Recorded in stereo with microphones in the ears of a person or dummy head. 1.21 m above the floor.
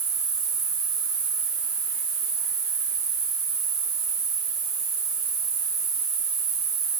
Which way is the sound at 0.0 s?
80° right.